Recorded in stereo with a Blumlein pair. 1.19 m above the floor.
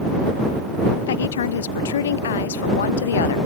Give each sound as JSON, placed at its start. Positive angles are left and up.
{"t": 1.1, "sound": "a woman speaking", "azimuth_deg": 60}